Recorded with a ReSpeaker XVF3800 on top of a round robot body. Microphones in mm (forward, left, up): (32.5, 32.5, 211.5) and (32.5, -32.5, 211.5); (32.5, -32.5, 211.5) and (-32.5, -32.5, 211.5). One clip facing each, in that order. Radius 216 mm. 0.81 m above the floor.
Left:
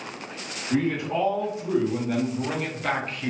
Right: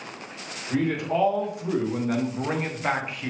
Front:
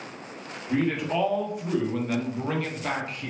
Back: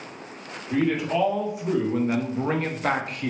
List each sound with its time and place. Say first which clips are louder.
0.7 s a man speaking: even, back 2 dB; 85° right, 1.4 m; by 3.3 s straight behind, 0.8 m